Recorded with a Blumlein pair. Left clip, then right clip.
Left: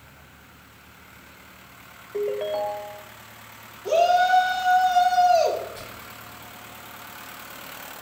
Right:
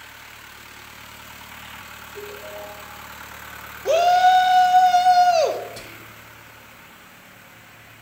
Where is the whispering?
25° right, 1.5 m.